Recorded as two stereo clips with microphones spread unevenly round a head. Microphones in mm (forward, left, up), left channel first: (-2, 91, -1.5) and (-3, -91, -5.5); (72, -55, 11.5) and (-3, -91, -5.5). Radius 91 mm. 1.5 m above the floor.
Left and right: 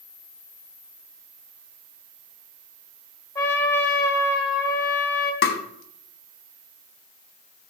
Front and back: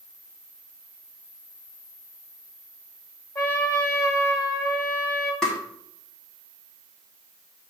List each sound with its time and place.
3.4 s a trumpet: 20° left, 1.7 m
5.4 s tapping: 105° left, 1.0 m